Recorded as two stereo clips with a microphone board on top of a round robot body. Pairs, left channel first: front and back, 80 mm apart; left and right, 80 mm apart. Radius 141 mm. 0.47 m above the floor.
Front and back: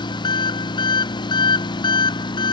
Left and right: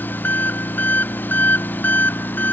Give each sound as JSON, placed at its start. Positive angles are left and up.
{"t": 0.0, "sound": "an engine running", "azimuth_deg": 25}